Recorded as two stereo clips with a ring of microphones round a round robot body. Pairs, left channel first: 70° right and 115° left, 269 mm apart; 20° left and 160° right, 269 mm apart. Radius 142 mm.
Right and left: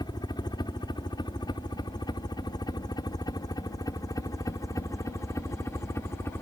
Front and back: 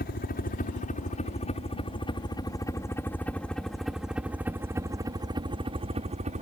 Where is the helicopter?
Straight ahead; by 6.4 s 140° right.